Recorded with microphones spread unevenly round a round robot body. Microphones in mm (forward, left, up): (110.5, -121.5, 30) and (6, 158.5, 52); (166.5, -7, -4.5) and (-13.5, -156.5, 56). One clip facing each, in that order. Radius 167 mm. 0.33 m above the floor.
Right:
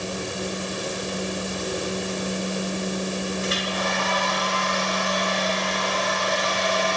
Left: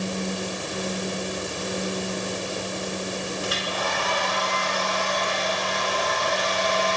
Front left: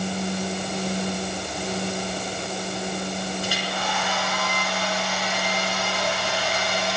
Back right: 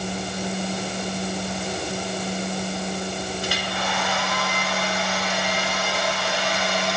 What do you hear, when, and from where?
3.4 s a hair dryer: 135° right, 6 m